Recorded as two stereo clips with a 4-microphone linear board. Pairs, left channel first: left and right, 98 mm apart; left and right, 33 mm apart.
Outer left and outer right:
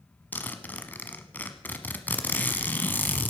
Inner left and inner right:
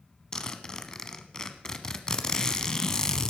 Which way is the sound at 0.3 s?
20° left (ahead or behind).